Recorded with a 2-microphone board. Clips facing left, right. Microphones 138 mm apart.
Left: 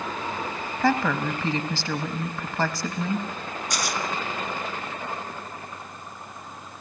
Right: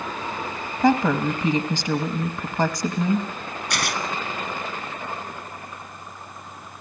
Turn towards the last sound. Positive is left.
turn(degrees=-65)  # may be behind; listen again after turning